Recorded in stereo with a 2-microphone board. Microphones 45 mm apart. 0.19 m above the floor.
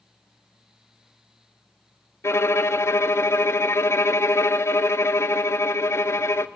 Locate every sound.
2.2 s a violin: 75° left (ahead or behind), 0.7 m